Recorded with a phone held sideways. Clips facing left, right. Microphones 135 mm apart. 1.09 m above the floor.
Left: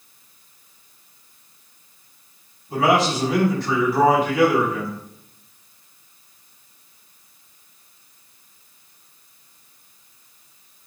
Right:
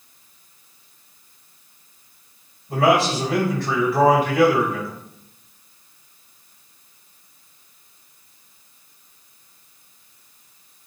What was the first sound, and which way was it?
A man speaking, 55° right (ahead or behind).